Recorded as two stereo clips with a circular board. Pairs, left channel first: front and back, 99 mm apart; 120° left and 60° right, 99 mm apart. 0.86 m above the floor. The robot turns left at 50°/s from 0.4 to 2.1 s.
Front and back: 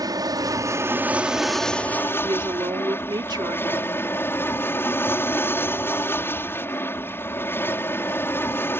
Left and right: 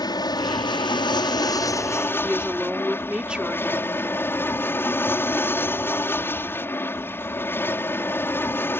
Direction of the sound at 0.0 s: 145° left.